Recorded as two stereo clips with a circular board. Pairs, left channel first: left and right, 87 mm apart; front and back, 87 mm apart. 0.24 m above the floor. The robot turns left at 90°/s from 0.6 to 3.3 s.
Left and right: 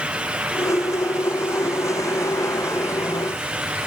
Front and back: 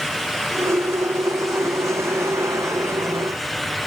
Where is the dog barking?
I don't hear a dog barking.